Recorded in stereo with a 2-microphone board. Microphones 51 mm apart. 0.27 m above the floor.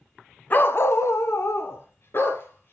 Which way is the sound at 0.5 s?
35° left (ahead or behind).